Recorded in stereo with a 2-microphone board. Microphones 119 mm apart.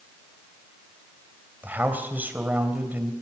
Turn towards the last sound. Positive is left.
turn(degrees=-15)  # may be behind; listen again after turning